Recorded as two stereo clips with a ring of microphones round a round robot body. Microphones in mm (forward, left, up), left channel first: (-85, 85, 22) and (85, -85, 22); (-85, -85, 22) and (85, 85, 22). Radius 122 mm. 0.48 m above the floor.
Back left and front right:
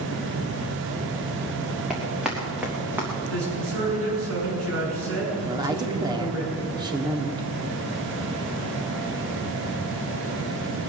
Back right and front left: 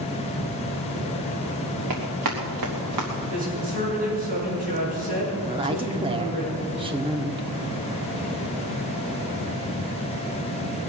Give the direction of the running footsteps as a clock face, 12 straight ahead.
11 o'clock.